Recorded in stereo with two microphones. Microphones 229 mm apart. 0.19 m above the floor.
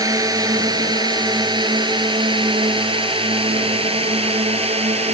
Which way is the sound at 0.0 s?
15° right (ahead or behind).